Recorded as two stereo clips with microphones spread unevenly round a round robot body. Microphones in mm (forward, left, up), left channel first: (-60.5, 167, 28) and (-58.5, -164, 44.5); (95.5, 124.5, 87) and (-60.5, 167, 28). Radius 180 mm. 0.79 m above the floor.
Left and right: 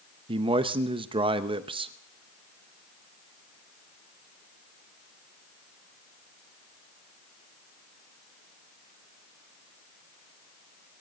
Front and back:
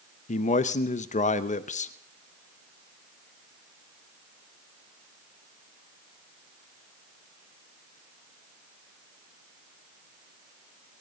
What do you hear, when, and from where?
0.3 s a man speaking: 30° right, 0.7 m